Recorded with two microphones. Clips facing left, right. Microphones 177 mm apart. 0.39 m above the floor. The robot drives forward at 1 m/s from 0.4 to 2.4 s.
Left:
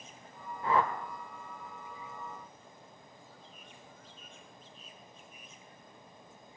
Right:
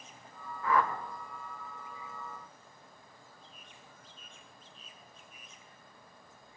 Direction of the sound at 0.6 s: 30° left (ahead or behind).